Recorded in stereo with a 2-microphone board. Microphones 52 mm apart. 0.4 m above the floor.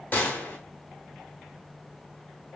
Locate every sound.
0.1 s a gunshot: 35° left (ahead or behind), 1.1 m